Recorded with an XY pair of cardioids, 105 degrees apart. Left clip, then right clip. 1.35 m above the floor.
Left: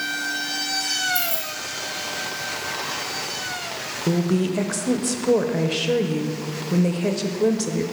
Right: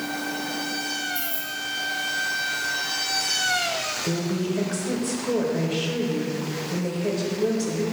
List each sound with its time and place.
1.1 s keys jangling: 65° left, 2 m
4.1 s a woman speaking: 50° left, 0.7 m